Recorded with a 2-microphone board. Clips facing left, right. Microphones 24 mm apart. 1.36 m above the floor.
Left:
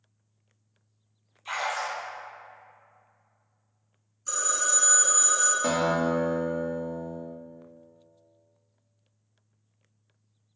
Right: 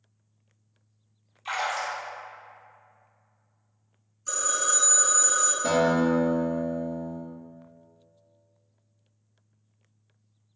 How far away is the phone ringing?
About 0.6 m.